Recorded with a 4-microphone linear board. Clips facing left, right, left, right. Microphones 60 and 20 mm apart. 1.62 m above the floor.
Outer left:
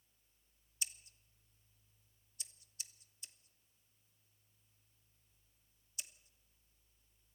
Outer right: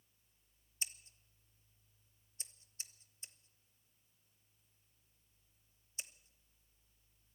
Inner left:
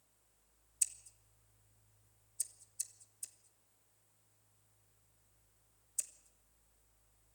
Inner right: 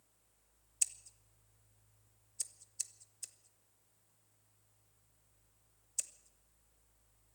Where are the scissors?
30° right (ahead or behind), 1.0 m.